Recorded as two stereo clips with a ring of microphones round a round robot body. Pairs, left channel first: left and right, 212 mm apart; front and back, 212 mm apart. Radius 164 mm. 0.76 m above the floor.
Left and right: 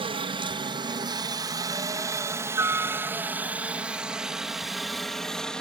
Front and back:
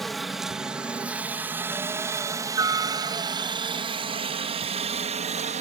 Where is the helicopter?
90° right; by 5.6 s 175° left.